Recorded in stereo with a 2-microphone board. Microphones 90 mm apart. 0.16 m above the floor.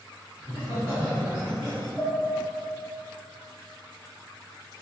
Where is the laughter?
25° right (ahead or behind), 1.5 m; by 1.9 s centre (ahead or behind), 1.9 m.